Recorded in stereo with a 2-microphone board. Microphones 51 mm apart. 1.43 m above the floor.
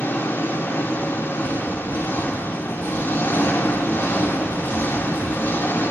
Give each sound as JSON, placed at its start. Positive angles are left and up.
{"t": 0.0, "sound": "an engine running", "side_deg": 50, "distance_m": 1.6}